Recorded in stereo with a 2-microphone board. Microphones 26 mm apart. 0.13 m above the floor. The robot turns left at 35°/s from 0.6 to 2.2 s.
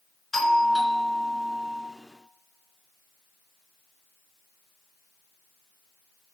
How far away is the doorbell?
About 1.7 m.